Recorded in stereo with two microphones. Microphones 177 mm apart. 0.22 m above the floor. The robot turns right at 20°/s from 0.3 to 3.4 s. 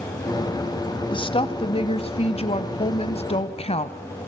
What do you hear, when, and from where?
1.1 s a woman speaking: 55° left, 1.1 m; by 4.0 s 100° left, 1.1 m